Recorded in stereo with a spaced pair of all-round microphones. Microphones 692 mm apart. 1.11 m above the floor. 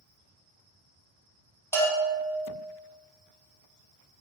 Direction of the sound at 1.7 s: 5° left (ahead or behind).